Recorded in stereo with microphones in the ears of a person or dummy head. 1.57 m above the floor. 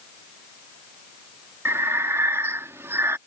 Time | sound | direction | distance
1.6 | breathing | 15° right (ahead or behind) | ?